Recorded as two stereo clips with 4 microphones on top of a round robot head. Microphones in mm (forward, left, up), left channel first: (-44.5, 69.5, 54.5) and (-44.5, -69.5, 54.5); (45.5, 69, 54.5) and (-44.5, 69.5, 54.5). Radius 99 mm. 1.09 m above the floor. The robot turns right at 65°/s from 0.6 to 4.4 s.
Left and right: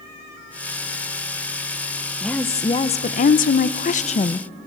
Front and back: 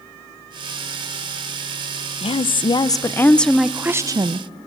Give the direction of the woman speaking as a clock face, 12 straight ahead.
12 o'clock.